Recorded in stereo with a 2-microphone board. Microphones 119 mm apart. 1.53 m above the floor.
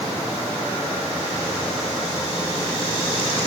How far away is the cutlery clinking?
No cutlery clinking in this recording.